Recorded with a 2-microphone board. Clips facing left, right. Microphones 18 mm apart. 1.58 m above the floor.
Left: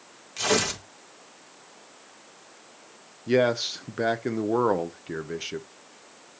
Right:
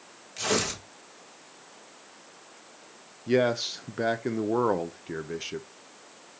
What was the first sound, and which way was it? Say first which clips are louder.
Tearing paper: left 3 dB; 15° left (ahead or behind).